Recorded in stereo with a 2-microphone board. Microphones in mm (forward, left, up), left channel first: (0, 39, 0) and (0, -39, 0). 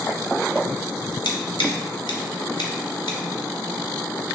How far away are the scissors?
About 0.8 m.